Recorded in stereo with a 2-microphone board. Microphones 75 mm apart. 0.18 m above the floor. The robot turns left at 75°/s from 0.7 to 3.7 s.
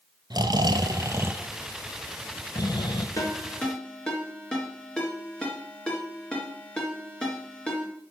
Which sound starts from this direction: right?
Snoring, at 0.3 s.